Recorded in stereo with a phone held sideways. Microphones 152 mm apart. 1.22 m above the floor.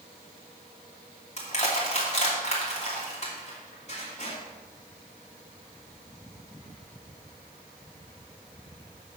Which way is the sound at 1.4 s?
45° left (ahead or behind).